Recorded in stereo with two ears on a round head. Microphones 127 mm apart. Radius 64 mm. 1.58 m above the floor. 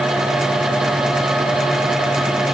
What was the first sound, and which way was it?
Only background noise.